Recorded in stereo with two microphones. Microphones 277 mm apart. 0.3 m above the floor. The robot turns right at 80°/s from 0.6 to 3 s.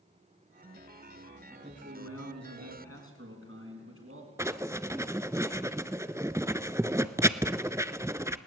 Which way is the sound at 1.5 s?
175° right.